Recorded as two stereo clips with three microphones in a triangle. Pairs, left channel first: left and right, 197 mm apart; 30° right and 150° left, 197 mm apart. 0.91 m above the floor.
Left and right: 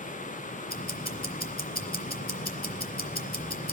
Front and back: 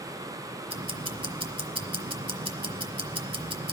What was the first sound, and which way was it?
Ticking, 95° left.